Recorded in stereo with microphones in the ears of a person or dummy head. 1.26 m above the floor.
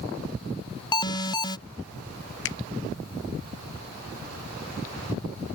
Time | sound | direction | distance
0.9 | an alarm | 20° left (ahead or behind) | ?
2.5 | a finger snap | 60° left (ahead or behind) | ?